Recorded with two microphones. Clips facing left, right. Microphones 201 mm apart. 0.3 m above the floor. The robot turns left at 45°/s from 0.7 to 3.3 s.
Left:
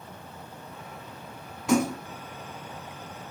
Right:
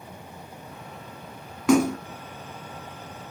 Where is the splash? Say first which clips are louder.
Right 4 dB; 80° right, 0.6 m; by 2.0 s 70° right (ahead or behind), 0.6 m.